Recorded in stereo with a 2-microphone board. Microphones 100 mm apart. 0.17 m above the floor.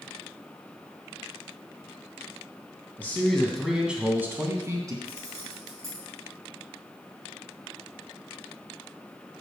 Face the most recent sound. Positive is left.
turn(degrees=-35)  # may be behind; listen again after turning